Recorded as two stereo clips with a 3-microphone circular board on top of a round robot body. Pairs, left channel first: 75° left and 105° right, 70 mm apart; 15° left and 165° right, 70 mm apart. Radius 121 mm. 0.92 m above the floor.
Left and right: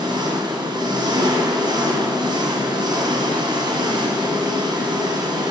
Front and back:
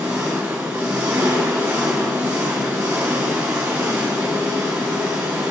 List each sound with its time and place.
0.0 s an engine running: 95° right, 1.6 m